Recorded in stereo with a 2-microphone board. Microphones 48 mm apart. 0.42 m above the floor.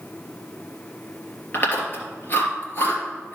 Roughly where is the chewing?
Left.